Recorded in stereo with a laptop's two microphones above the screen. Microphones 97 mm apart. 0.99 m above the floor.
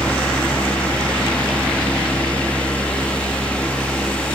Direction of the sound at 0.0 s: 10° left (ahead or behind).